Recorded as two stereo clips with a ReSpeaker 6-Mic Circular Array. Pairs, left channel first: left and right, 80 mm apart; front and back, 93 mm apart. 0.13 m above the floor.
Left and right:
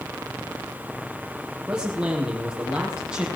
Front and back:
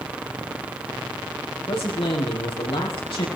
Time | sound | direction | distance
1.7 | a man speaking | 15° right | 4.5 m